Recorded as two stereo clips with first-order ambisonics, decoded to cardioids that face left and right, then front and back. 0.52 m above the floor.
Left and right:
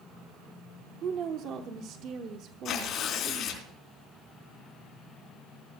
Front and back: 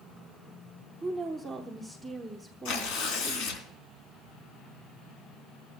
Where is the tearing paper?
30° left, 3 m.